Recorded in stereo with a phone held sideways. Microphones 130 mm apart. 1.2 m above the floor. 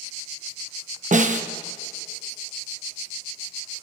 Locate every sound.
1.1 s a snare drum: 75° right (ahead or behind), 0.9 m